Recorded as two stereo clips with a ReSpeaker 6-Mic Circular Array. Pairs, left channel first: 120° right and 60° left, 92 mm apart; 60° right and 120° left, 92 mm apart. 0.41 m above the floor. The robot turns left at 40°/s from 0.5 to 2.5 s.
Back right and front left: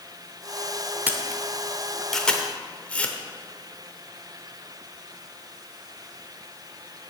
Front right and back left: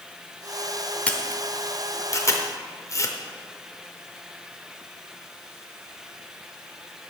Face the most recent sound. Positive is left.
turn(degrees=-55)